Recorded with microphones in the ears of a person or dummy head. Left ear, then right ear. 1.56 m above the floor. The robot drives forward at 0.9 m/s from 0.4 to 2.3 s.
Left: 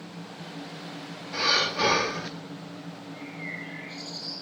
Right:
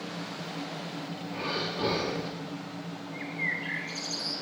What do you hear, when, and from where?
1.3 s breathing: 60° left (ahead or behind), 1.6 m; by 2.3 s 45° left (ahead or behind), 1.9 m
3.1 s a bird: 45° right (ahead or behind), 5 m